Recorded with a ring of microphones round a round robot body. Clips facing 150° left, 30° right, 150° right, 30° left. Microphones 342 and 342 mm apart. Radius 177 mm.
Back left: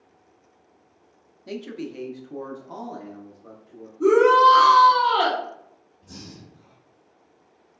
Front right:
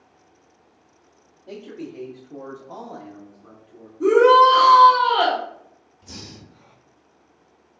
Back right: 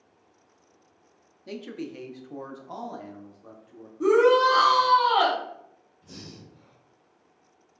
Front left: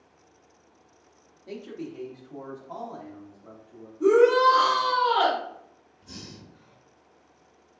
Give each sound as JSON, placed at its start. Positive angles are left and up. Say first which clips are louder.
{"t": 1.5, "sound": "a man speaking", "louder": "back left 2 dB, back right 1 dB", "azimuth_deg": 165, "distance_m": 0.7}
{"t": 4.0, "sound": "a shout", "louder": "front right 2 dB, front left 1 dB", "azimuth_deg": -115, "distance_m": 1.5}
{"t": 6.0, "sound": "breathing", "louder": "front right 1 dB, even", "azimuth_deg": -45, "distance_m": 0.8}